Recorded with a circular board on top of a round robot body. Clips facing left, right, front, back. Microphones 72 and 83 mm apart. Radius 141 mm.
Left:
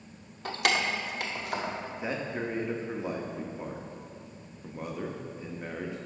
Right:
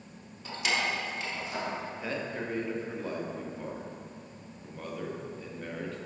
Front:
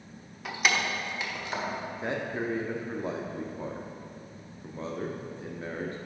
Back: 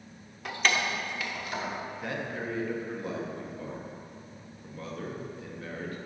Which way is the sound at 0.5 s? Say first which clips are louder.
Left 3 dB, even; 90° left.